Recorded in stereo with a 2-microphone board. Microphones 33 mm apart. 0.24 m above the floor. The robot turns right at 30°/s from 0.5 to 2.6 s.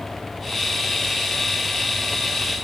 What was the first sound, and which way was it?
Only background noise.